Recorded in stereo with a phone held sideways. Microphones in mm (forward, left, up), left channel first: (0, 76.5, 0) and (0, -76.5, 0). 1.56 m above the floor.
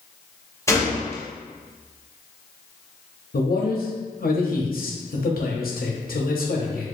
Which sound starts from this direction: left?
A man speaking, at 3.3 s.